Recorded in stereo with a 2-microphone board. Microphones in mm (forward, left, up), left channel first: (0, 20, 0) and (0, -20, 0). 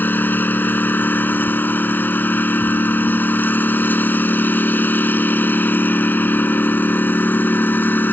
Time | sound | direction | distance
0.0 | a lawn mower | 50° left (ahead or behind) | ?